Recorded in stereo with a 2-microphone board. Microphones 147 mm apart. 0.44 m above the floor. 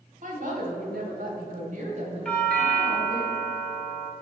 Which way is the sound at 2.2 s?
5° left (ahead or behind).